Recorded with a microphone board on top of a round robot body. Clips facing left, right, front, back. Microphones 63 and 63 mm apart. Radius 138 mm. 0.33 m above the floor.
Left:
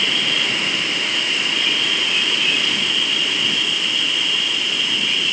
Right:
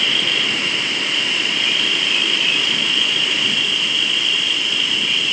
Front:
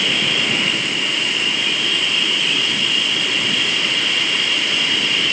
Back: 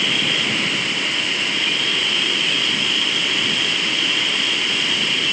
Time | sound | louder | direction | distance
0.0 | an insect | right 1 dB, front 1 dB | 160° left | 8 m